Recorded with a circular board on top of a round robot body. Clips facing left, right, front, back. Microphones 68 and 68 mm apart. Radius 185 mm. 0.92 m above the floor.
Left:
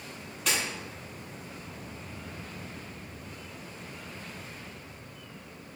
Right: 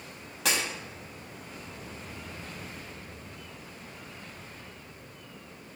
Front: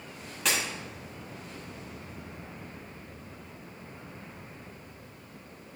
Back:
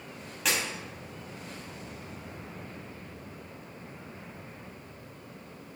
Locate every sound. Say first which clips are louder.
0.5 s breaking glass: right 1 dB, even; 90° right, 4 m